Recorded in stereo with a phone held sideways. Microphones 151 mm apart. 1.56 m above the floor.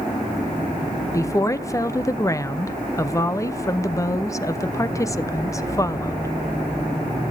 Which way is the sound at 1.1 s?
20° left (ahead or behind).